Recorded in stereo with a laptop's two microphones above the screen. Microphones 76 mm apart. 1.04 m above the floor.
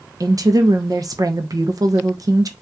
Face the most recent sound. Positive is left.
turn(degrees=-45)  # may be behind; listen again after turning